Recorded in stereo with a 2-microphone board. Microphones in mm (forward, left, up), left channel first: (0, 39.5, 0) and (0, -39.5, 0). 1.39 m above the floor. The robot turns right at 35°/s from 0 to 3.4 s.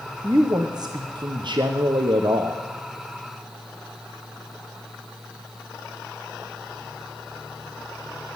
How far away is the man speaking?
About 0.8 m.